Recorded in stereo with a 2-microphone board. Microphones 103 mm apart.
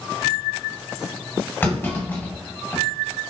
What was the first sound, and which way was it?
A clunk, 20° left (ahead or behind).